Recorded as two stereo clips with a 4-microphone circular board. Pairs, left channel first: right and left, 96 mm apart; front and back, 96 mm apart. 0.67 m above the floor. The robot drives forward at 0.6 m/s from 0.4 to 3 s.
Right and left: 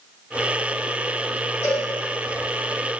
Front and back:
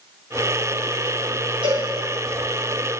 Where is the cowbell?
155° right, 3.5 m.